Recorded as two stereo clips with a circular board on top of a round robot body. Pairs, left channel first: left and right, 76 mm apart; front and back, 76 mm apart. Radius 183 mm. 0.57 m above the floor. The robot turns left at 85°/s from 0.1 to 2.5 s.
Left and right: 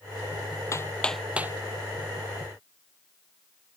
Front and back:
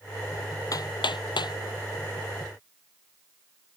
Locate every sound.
0.7 s hammering: 40° left; by 1.6 s 30° right